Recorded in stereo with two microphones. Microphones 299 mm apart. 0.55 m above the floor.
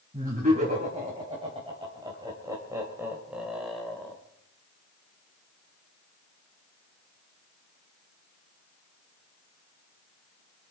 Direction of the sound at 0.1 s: 25° right (ahead or behind).